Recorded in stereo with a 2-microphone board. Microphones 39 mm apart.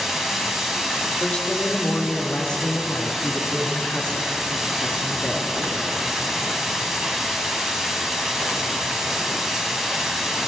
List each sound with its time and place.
0.0 s running water: 10° right (ahead or behind), 1.2 m
1.2 s a woman speaking: 30° left (ahead or behind), 1.5 m